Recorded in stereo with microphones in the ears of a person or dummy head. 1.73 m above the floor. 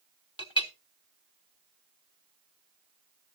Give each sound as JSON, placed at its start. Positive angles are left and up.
{"t": 0.4, "sound": "a clink", "side_deg": 25, "distance_m": 1.1}